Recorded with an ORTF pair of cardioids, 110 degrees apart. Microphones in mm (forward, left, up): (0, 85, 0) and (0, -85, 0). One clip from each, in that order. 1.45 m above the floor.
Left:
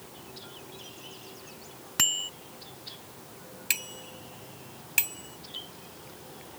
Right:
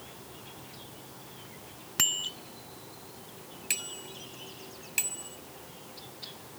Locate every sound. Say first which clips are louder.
2.0 s a bicycle bell: left 1 dB; 10° left
3.7 s a bicycle bell: left 3 dB; 30° left